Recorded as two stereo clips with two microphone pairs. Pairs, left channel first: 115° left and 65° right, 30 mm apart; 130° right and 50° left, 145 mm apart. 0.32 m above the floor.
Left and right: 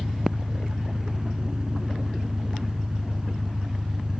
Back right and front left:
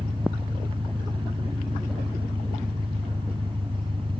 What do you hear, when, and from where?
0.0 s an engine running: straight ahead